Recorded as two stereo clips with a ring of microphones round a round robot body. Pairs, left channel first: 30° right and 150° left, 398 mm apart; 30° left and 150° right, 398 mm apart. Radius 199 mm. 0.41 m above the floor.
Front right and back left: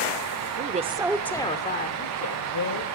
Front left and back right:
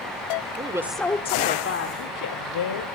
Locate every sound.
0.6 s a woman speaking: 155° left, 1.0 m; by 2.9 s 5° left, 1.6 m